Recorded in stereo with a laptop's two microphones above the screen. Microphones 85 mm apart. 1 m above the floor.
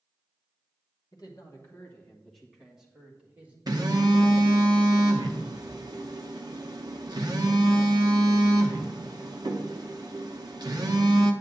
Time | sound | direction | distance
1.1 | a man speaking | 50° left (ahead or behind) | 1.2 m
3.7 | a phone buzzing | 50° right (ahead or behind) | 0.7 m